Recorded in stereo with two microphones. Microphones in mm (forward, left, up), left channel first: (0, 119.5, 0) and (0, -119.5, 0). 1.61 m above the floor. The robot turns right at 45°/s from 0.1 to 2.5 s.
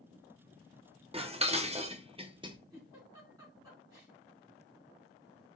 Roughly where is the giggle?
Centre.